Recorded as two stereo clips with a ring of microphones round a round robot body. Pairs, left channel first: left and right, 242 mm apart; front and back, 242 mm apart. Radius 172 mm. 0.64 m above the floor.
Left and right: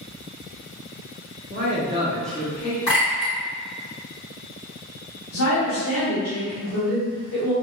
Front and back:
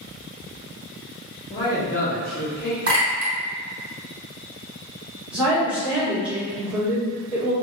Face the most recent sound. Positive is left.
turn(degrees=95)